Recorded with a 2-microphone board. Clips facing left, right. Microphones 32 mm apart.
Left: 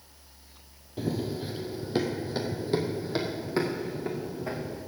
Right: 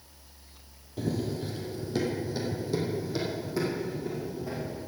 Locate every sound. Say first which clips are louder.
1.0 s running footsteps: even; 15° left (ahead or behind), 1.5 m; by 4.8 s 60° left (ahead or behind), 3.5 m